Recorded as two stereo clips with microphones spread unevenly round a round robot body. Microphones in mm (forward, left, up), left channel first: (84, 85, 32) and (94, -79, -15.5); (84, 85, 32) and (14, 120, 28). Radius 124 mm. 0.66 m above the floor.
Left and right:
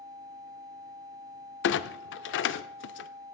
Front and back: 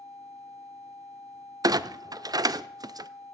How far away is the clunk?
About 0.6 m.